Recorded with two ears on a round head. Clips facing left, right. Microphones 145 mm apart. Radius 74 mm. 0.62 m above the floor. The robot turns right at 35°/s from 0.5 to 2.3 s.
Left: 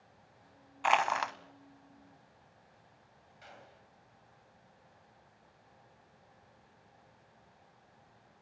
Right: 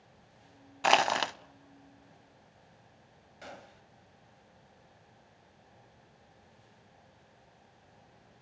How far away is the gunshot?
About 2 m.